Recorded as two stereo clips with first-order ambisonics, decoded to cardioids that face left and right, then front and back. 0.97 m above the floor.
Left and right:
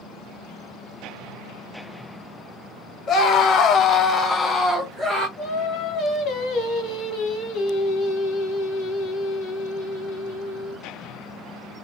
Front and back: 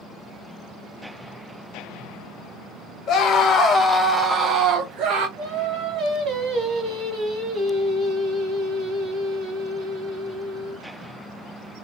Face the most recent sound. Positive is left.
turn(degrees=120)